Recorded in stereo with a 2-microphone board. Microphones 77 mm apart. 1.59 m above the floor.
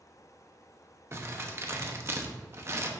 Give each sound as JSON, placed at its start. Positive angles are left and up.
{"t": 1.1, "sound": "crumpling", "side_deg": -35, "distance_m": 0.9}